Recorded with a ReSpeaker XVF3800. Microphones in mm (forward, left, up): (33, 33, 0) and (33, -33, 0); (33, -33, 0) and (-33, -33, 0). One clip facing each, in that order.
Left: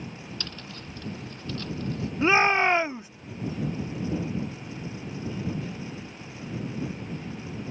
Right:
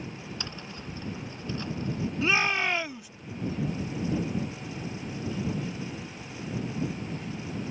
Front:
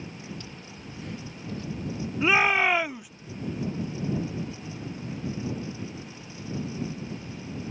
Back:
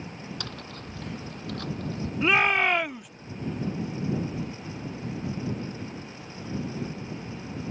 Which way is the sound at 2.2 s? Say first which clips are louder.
Left 6 dB, front 1 dB; 80° left.